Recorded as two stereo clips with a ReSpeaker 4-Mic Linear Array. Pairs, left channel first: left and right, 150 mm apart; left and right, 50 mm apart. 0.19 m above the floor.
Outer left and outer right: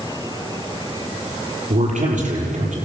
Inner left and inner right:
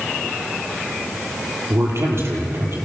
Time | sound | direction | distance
1.7 | a man speaking | 60° right (ahead or behind) | 6.5 m